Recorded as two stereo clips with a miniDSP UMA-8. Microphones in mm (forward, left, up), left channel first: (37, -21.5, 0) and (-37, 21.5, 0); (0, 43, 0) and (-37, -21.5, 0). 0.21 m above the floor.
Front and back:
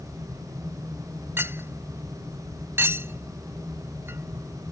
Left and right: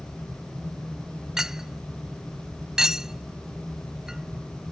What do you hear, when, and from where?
1.4 s a clink: 165° left